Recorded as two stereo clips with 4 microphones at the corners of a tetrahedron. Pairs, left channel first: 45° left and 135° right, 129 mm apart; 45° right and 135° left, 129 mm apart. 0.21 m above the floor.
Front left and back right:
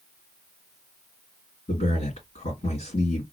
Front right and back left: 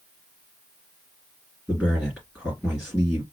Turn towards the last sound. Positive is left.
turn(degrees=55)